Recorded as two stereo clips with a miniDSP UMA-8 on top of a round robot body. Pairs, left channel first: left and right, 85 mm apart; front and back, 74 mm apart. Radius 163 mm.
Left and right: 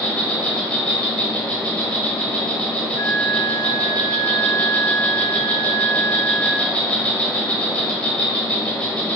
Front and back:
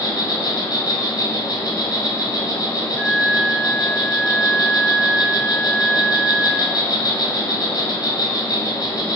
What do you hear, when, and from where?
0.0 s an insect: 20° left, 1.0 m
3.0 s a flute: 105° left, 1.3 m